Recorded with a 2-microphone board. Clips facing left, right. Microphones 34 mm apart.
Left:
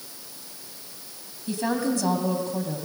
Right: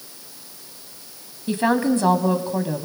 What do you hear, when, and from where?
1.5 s a woman speaking: 45° right (ahead or behind), 1.7 m